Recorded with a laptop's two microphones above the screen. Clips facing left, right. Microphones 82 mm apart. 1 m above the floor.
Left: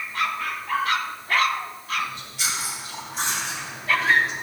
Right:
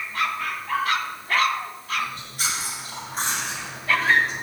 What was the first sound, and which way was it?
Chewing, 45° right (ahead or behind).